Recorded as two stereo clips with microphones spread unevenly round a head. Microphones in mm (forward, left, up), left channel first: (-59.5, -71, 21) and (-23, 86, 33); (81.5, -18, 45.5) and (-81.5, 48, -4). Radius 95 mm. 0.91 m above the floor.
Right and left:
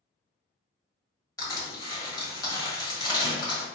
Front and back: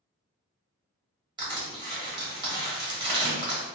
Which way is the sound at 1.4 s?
160° right.